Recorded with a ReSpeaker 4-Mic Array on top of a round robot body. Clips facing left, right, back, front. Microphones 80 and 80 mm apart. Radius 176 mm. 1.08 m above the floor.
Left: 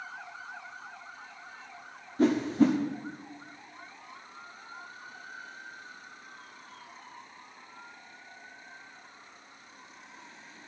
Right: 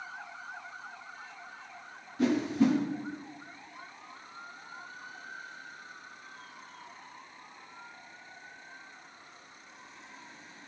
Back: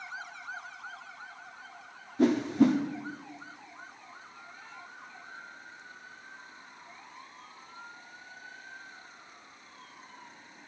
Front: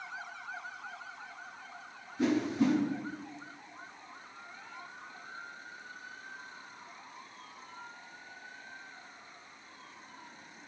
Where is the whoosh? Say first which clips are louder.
Left 3 dB, back 5 dB; 140° left, 0.9 m.